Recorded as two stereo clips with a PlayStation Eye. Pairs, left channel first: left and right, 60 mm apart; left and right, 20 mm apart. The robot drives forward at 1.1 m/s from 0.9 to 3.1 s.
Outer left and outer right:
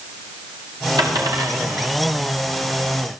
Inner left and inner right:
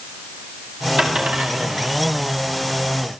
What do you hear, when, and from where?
1.0 s a dropped coin: 75° right (ahead or behind), 6 m; by 1.9 s 65° right (ahead or behind), 6.5 m